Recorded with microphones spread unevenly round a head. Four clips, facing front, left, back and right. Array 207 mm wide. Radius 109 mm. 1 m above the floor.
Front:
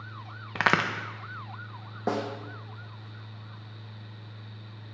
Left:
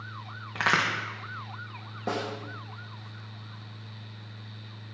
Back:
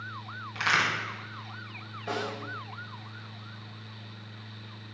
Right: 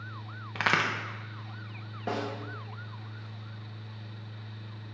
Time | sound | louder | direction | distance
0.6 | a crack | left 2 dB, front 3 dB | straight ahead | 0.8 m
2.1 | a snare drum | left 1 dB, front 4 dB | 15° left | 1.2 m